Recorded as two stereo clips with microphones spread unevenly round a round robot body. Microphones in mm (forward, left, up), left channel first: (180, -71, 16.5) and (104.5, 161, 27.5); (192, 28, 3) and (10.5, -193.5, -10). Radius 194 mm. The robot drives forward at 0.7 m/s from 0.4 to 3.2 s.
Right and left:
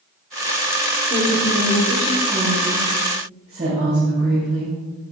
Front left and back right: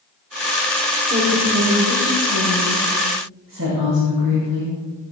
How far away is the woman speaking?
About 1.4 m.